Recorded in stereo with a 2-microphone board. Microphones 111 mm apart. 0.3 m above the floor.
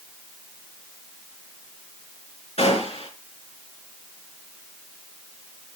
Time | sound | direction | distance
2.6 | a gunshot | 70° left (ahead or behind) | 3.5 m